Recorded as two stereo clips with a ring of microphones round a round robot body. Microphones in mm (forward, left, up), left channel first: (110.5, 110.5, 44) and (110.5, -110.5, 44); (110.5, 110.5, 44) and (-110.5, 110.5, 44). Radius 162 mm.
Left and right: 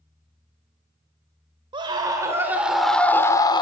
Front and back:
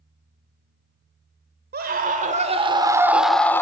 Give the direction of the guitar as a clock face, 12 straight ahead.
I don't hear a guitar.